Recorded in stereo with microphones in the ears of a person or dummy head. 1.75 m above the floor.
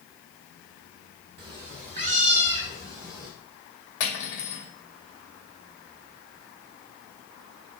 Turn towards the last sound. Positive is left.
turn(degrees=60)  # may be behind; listen again after turning